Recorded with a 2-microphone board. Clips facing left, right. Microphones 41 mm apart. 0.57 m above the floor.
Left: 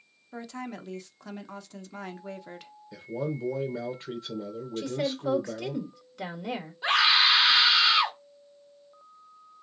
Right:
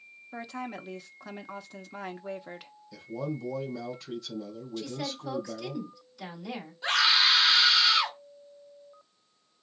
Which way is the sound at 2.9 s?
35° left (ahead or behind).